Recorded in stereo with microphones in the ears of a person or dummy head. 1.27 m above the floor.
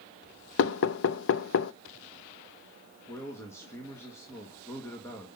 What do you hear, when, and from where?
0.6 s knocking: 70° left (ahead or behind), 0.6 m
3.1 s a man speaking: 15° left (ahead or behind), 1.7 m